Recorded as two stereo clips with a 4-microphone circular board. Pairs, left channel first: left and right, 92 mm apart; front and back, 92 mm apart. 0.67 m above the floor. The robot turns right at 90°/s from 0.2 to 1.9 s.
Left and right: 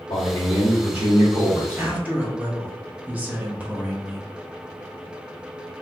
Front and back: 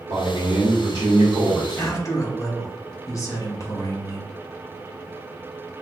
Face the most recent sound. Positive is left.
turn(degrees=-30)